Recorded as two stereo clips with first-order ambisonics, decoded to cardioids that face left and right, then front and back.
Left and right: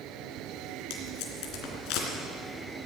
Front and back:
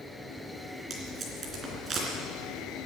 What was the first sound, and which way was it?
Tape being pulled, 115° left.